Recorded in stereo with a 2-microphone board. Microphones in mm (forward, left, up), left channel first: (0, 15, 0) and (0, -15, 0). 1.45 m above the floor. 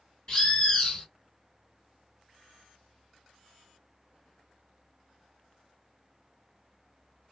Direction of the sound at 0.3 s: 35° left (ahead or behind).